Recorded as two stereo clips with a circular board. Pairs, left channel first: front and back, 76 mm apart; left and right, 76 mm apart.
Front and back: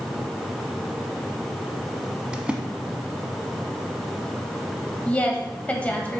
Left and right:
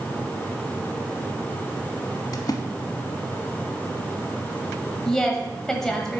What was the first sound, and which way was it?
A splash, 105° left.